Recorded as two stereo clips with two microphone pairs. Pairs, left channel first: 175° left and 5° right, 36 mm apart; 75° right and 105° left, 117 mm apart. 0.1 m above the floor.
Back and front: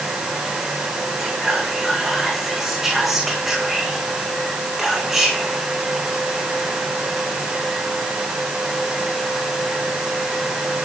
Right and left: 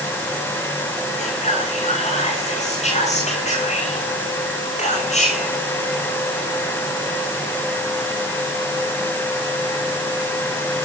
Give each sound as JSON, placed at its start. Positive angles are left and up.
{"t": 1.2, "sound": "whispering", "azimuth_deg": -90, "distance_m": 9.5}